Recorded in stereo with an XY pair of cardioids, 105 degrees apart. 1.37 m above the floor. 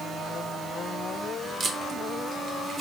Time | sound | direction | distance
1.6 | tape being pulled | 50° right | 1.2 m